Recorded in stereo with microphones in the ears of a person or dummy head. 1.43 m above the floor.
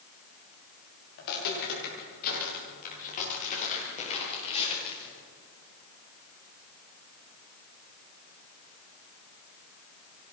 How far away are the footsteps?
About 9 m.